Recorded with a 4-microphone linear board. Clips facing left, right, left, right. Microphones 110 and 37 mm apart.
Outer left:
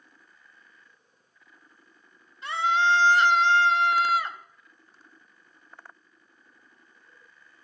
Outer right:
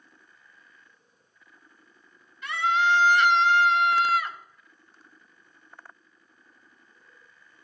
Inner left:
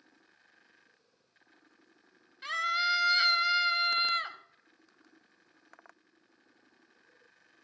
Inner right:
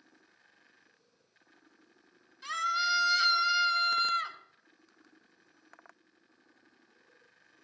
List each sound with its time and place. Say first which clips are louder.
2.4 s a scream: even, inner left 1 dB; 30° left (ahead or behind), 2.0 m